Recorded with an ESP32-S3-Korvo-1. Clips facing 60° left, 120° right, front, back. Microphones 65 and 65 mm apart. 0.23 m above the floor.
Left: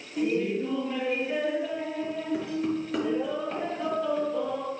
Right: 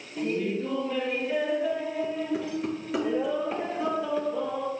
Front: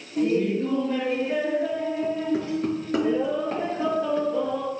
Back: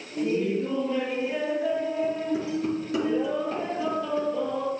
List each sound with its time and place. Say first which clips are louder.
0.2 s laughter: left 2 dB, front 3 dB; 15° right, 5 m; by 4.7 s 45° right, 4 m